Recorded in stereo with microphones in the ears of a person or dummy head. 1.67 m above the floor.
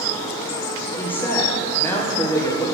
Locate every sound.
1.0 s a woman speaking: 10° left (ahead or behind), 1.2 m